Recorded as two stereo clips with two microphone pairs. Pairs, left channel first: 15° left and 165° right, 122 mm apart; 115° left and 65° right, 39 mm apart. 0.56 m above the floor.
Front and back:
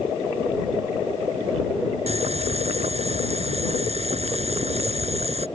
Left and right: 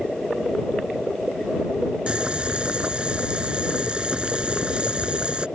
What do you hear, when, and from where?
2.1 s boiling: 130° right